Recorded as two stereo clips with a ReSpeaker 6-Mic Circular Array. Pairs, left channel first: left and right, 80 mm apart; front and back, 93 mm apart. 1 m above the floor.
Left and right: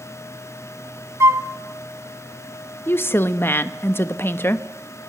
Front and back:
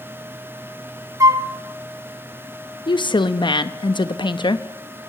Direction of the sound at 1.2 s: 135° right.